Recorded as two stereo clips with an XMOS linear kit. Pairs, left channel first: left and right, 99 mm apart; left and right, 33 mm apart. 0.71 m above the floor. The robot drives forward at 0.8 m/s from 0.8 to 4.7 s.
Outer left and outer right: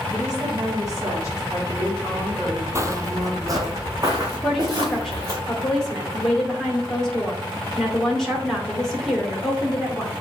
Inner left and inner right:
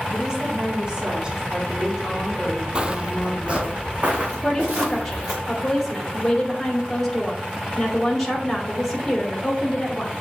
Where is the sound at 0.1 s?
35° right (ahead or behind), 4 m; by 3.7 s 20° right (ahead or behind), 6 m.